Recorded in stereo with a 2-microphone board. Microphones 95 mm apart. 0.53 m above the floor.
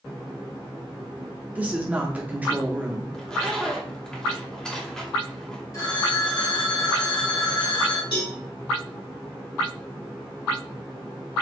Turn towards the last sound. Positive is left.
turn(degrees=65)  # may be behind; listen again after turning